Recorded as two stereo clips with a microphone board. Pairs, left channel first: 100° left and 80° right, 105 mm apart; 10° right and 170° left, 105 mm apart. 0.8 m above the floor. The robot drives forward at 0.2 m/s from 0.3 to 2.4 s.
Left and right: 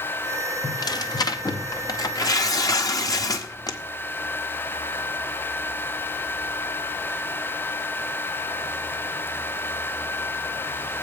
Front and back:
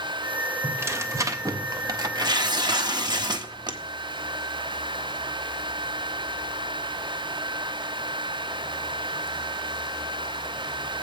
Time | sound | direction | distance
0.6 | tearing paper | 110° left | 0.7 m